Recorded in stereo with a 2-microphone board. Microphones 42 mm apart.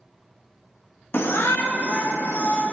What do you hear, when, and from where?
1.1 s a shout: 60° left (ahead or behind), 0.8 m; by 2.6 s 65° left (ahead or behind), 2 m